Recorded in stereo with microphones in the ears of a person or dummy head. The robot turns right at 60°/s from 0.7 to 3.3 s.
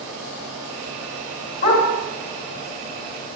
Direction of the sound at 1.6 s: 30° left (ahead or behind).